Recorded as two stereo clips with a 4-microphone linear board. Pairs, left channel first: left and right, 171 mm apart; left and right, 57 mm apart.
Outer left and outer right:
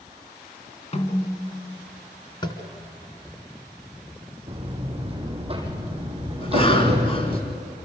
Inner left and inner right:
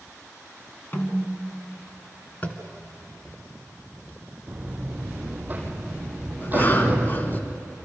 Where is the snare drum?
40° left (ahead or behind), 2 m.